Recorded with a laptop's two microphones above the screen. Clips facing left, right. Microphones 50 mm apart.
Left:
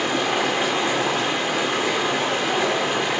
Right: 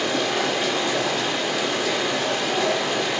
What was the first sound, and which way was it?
Running water, 25° left (ahead or behind).